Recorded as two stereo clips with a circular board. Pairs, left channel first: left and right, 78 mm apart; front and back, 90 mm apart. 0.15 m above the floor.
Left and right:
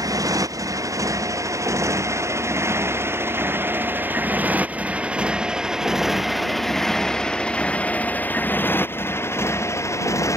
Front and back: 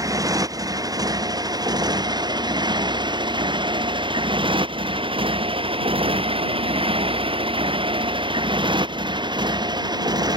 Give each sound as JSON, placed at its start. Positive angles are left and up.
{"t": 0.0, "sound": "a motorcycle", "azimuth_deg": -130}